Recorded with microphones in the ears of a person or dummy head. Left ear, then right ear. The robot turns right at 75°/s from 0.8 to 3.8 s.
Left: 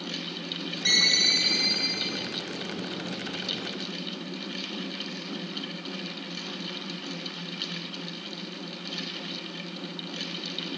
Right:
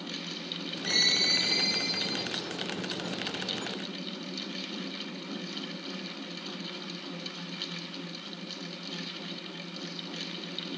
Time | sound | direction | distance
0.8 | a ringtone | 105° left | 2.5 m